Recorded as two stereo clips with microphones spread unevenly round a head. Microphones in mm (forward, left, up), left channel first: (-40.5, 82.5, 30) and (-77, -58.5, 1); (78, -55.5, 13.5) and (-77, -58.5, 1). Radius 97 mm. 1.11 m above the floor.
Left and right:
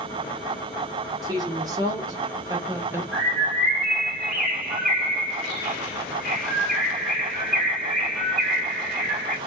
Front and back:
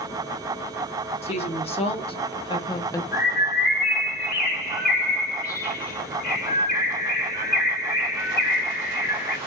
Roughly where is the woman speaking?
Ahead right.